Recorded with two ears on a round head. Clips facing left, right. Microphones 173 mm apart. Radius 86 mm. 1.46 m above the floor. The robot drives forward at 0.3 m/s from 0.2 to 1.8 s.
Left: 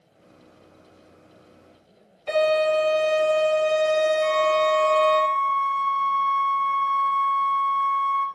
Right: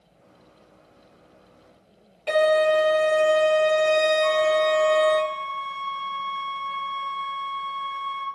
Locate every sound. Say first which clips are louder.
2.3 s a violin: right 1 dB; 60° right (ahead or behind), 1.9 m
4.2 s a flute: right 1 dB; centre (ahead or behind), 0.8 m